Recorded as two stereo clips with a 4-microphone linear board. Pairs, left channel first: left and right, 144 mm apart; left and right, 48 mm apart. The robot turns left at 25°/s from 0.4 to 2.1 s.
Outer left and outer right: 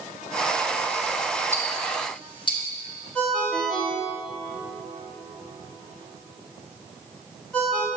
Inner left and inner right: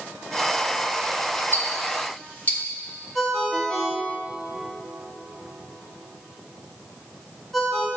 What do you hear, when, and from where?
1.5 s ticking: 45° left (ahead or behind), 1.1 m; by 2.6 s 35° left (ahead or behind), 1.1 m
3.1 s a ringtone: 5° left (ahead or behind), 1.3 m